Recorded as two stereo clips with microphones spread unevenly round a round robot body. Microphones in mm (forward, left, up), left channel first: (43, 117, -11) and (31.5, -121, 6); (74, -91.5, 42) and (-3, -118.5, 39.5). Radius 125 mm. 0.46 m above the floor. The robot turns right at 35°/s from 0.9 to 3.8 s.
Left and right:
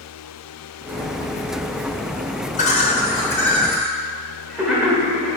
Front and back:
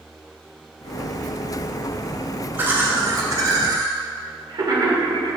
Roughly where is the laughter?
Behind left.